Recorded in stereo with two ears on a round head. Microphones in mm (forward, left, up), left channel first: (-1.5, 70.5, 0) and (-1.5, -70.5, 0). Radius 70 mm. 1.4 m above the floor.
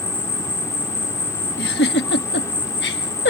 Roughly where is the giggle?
Left.